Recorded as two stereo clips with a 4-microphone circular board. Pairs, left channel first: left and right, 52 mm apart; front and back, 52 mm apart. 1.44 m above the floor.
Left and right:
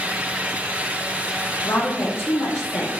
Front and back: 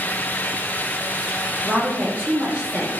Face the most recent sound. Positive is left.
turn(degrees=105)